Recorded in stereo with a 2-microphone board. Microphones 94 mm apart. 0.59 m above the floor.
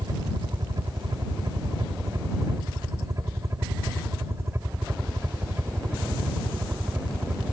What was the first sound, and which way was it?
A helicopter, 45° right (ahead or behind).